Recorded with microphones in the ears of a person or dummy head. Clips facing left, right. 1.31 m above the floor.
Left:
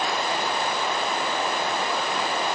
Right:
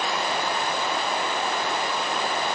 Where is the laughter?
I don't hear laughter.